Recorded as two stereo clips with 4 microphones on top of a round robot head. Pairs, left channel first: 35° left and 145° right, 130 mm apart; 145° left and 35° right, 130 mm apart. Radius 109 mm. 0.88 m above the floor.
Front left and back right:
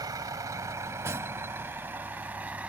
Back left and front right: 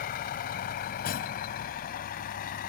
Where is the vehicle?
150° left; by 2.7 s 135° left.